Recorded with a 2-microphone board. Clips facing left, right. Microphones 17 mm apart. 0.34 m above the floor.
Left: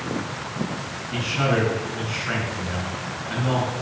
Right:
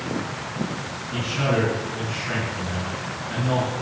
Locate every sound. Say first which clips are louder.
1.1 s a man speaking: left 1 dB; 30° left (ahead or behind), 4 m